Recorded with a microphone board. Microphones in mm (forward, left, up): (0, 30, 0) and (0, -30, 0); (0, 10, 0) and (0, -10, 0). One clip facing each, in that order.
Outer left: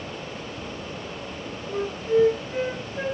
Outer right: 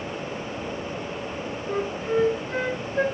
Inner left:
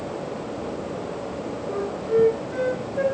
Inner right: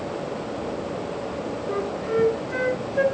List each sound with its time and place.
1.7 s a flute: 50° right (ahead or behind), 6 m